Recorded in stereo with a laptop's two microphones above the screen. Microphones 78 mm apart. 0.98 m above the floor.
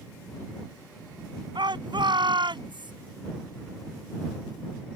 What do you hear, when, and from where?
1.6 s a shout: 80° right; by 2.9 s 85° right